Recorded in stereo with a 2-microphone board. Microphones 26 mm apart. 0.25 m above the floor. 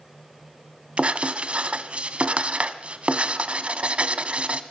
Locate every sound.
1.0 s writing: 55° right (ahead or behind), 1.4 m